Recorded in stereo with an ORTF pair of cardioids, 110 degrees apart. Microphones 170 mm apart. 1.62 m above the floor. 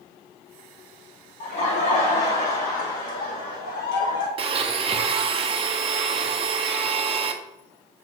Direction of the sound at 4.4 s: 35° right.